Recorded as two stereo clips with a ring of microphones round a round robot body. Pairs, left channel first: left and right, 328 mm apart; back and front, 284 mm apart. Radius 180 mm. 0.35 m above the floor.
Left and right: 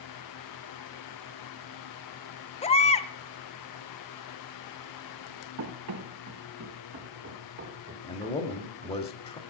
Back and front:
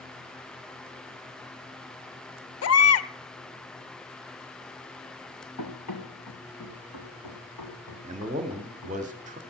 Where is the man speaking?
35° left, 1.2 m.